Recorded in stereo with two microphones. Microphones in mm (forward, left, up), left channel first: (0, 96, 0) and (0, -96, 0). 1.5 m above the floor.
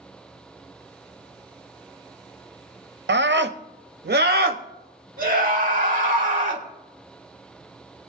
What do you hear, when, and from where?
3.1 s a scream: 65° right (ahead or behind), 0.6 m; by 6.6 s 45° right (ahead or behind), 2 m